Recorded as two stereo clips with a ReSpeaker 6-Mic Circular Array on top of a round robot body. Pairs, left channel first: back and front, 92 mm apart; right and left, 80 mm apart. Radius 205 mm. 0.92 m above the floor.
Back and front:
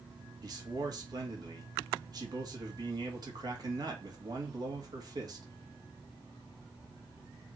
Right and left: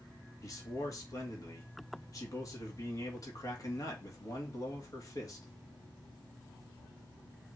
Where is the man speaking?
45° right, 2 m.